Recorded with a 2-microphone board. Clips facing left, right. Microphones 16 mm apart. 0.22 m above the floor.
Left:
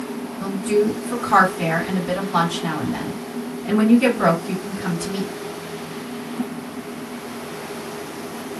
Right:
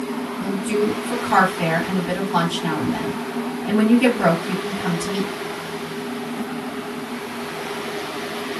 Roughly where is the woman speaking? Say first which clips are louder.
Left 3 dB; centre.